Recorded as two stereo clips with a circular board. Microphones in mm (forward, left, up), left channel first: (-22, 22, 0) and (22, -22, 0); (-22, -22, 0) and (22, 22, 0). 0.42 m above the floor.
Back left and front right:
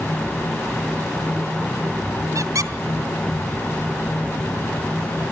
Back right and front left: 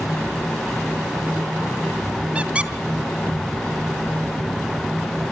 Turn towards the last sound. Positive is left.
turn(degrees=-25)